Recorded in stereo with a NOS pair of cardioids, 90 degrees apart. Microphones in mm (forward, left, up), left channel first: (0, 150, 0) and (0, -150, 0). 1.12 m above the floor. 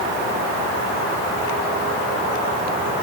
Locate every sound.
Only background noise.